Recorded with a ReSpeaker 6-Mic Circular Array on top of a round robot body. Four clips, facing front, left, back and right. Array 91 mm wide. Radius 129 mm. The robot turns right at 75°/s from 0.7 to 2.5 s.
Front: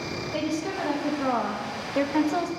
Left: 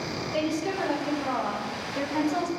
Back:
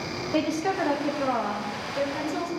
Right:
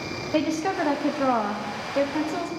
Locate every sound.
0.3 s a woman speaking: 115° right, 1.2 m; by 2.5 s 20° left, 1.2 m